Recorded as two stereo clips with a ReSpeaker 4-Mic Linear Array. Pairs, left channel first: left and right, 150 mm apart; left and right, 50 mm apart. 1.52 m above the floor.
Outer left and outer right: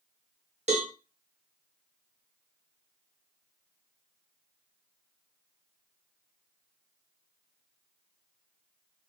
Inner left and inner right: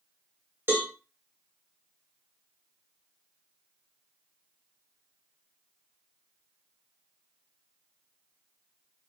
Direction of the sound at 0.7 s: 50° right (ahead or behind).